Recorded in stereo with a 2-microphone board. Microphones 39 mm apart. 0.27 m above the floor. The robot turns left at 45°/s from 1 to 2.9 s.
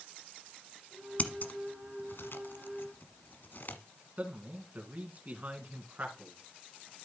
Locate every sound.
1.2 s scissors: 35° left (ahead or behind), 0.8 m; by 3.8 s 60° left (ahead or behind), 0.8 m
4.2 s a man speaking: 45° right (ahead or behind), 2.5 m